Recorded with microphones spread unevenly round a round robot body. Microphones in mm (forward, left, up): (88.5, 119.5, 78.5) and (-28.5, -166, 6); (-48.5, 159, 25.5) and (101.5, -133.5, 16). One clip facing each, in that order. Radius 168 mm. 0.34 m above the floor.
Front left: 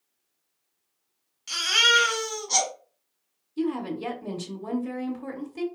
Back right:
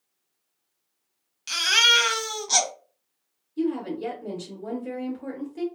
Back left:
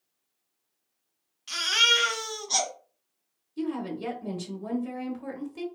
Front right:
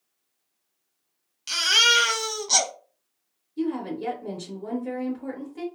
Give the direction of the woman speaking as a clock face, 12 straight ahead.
7 o'clock.